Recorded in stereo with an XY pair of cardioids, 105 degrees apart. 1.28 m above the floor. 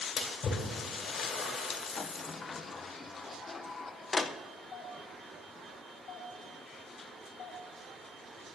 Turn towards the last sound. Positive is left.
turn(degrees=65)